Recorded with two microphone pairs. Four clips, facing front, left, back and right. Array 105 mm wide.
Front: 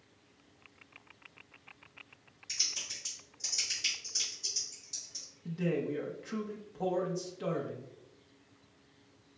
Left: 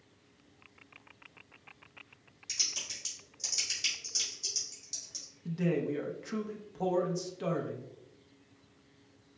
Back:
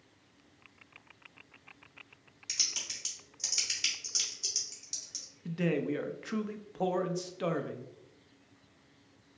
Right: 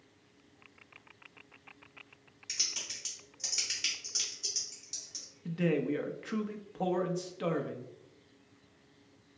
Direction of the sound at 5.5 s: 165° right.